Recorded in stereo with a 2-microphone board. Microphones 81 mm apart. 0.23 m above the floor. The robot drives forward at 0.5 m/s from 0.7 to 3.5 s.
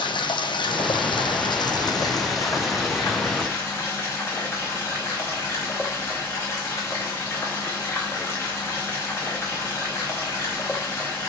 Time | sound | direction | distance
0.0 | running water | 80° left | 0.8 m